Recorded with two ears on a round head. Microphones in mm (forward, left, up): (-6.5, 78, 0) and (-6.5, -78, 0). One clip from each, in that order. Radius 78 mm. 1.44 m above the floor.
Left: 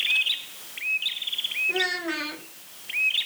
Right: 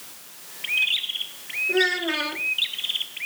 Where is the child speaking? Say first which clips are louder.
Right 4 dB; 15° left (ahead or behind), 1.8 m.